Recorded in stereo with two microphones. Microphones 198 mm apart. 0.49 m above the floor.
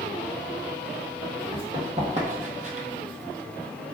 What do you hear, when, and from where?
1.5 s running footsteps: 25° right (ahead or behind), 1.3 m; by 2.9 s 35° right (ahead or behind), 0.6 m